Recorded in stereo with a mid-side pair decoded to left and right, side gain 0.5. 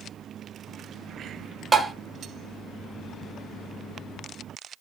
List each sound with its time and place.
1.7 s tapping: 25° right, 1.0 m